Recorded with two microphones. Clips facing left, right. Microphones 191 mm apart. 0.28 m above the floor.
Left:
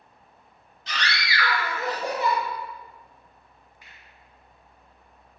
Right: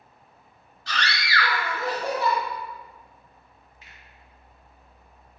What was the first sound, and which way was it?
A scream, 20° left (ahead or behind).